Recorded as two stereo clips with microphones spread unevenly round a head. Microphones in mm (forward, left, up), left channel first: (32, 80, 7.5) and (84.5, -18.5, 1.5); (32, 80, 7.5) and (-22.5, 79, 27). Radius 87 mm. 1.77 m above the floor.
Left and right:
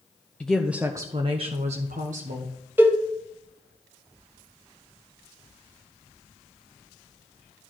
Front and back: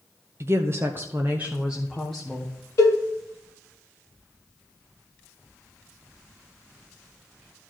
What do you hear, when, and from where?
0.4 s a woman speaking: 160° right, 0.7 m; by 2.5 s 85° right, 1.2 m
2.8 s a cowbell: straight ahead, 1.8 m